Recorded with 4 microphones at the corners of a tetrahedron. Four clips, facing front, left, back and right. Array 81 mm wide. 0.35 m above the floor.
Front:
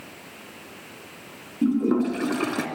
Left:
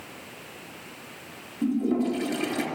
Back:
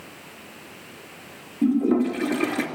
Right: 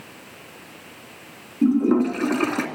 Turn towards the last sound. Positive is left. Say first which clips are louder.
# right 7 dB, back 1 dB
turn(degrees=-65)